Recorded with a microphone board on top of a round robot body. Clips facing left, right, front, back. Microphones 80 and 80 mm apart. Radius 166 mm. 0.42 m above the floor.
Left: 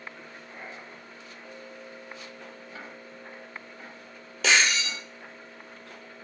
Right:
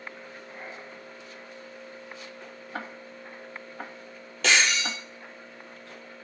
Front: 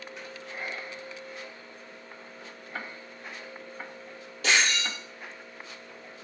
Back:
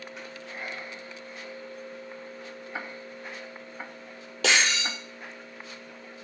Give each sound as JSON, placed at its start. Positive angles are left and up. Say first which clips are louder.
{"t": 2.7, "sound": "ticking", "louder": "right 9 dB, back 1 dB", "azimuth_deg": -100, "distance_m": 1.0}
{"t": 4.4, "sound": "breaking glass", "louder": "even, back 1 dB", "azimuth_deg": 180, "distance_m": 4.5}